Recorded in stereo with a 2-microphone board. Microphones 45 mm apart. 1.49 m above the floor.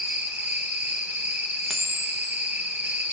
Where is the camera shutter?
25° left (ahead or behind), 0.8 m.